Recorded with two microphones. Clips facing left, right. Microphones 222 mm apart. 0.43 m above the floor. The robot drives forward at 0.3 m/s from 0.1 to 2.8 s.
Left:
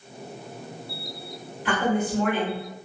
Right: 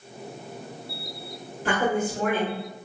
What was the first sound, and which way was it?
A woman speaking, 45° right (ahead or behind).